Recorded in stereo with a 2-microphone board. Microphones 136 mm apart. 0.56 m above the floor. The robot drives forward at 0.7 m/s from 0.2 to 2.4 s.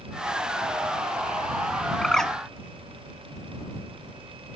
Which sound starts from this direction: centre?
A bird, at 2.0 s.